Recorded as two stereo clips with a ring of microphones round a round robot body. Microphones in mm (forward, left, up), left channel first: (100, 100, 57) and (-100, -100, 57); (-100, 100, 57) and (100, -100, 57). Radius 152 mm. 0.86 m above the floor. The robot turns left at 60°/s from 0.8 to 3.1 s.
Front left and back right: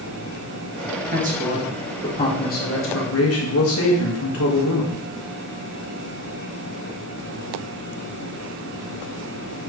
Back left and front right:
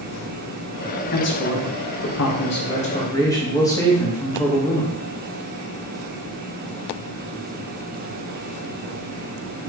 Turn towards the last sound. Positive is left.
turn(degrees=60)